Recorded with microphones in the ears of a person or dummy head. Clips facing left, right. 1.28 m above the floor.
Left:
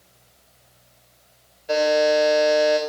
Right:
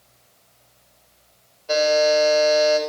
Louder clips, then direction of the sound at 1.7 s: Right 1 dB; 15° left (ahead or behind).